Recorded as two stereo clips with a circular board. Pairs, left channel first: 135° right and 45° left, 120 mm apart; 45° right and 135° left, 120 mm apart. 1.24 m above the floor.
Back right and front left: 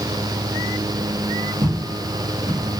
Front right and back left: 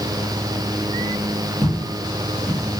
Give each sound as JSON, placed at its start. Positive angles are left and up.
{"t": 1.6, "sound": "footsteps", "azimuth_deg": 15, "distance_m": 1.4}